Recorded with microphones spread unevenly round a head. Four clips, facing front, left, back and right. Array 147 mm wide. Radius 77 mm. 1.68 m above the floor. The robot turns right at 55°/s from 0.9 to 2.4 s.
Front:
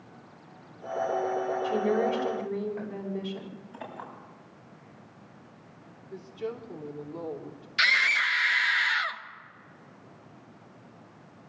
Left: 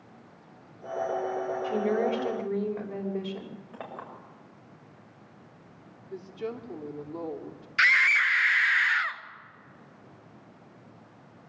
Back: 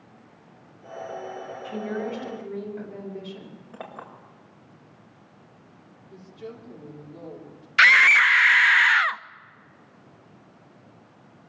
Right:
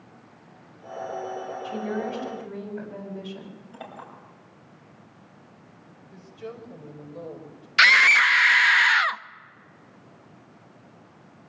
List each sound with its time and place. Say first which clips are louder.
1.6 s a woman speaking: left 4 dB, front 3 dB; 40° left, 5.5 m; by 3.6 s 80° left, 5.5 m
3.7 s a clink: even, back 3 dB; 150° left, 6.5 m
6.1 s a woman speaking: left 4 dB, front 5 dB; 75° left, 3.5 m
7.8 s a scream: right 6 dB, back 9 dB; 125° right, 0.7 m